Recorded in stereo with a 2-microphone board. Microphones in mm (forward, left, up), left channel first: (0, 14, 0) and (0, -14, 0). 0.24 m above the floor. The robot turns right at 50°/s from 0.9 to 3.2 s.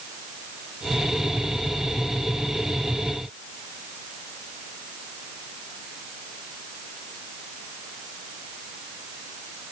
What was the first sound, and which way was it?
Only background noise.